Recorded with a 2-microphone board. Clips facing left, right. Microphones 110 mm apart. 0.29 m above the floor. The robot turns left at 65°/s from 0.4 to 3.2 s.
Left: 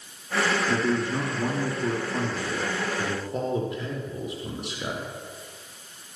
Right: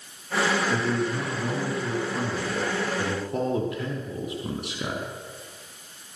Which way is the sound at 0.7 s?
100° left.